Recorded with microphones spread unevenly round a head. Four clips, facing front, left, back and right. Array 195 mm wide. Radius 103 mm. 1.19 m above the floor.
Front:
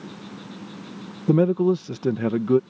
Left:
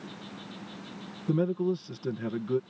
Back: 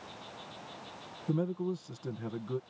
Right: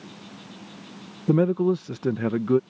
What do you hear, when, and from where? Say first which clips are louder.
0.0 s an insect: even, front 9 dB; straight ahead
1.3 s a man speaking: right 7 dB, front 14 dB; 25° right